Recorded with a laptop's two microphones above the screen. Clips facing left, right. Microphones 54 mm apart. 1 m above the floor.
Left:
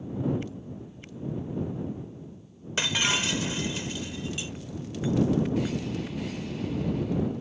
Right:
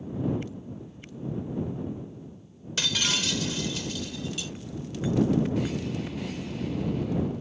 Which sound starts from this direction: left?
Breaking glass, at 2.8 s.